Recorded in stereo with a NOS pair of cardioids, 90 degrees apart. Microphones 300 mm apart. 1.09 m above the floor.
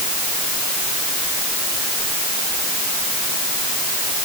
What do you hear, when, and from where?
Only background noise.